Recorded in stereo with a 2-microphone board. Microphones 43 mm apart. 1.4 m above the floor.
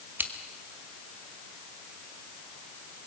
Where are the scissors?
55° right (ahead or behind), 1.5 m.